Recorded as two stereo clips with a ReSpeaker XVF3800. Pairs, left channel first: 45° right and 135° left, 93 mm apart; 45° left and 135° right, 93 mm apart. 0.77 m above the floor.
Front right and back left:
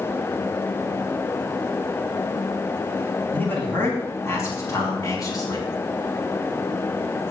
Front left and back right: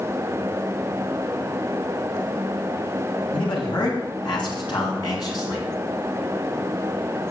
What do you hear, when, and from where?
3.3 s a man speaking: 25° left, 5.5 m; by 5.7 s straight ahead, 6 m